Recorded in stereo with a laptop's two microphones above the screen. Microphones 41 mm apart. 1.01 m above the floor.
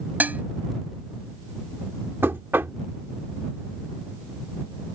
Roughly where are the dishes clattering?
Right.